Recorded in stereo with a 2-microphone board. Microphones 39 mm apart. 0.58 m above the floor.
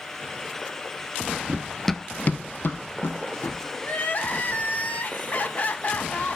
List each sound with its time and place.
1.5 s running footsteps: 30° right (ahead or behind), 0.7 m; by 3.6 s 70° left (ahead or behind), 2 m
3.8 s crying: 45° left (ahead or behind), 1.0 m